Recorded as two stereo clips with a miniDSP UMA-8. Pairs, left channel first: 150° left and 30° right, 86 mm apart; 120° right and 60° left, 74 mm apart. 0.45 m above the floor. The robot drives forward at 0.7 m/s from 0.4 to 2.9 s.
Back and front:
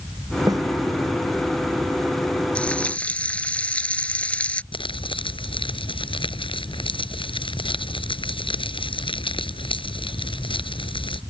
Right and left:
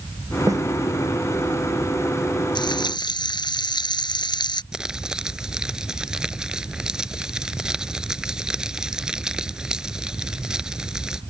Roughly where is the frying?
Behind right.